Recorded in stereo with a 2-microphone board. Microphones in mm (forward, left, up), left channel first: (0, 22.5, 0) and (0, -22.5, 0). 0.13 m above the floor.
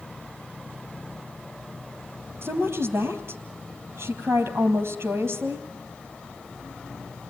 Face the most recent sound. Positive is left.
turn(degrees=-65)  # may be behind; listen again after turning